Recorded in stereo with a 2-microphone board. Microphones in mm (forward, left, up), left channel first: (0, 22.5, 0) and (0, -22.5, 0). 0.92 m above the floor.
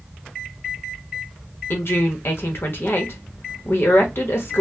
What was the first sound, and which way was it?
A woman speaking, 65° left (ahead or behind).